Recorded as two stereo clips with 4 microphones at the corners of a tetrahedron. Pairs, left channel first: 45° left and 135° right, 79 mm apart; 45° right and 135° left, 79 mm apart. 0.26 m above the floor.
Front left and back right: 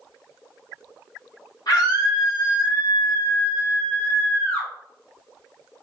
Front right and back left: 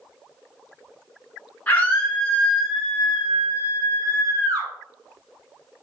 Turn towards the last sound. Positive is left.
turn(degrees=115)